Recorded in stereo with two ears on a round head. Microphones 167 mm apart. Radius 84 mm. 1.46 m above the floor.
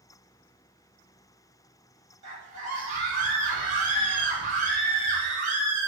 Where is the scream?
45° right (ahead or behind), 1.3 m.